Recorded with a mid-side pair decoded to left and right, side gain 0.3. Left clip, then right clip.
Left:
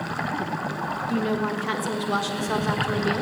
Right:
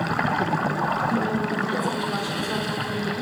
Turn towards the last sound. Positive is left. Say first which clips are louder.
# right 1 dB
turn(degrees=70)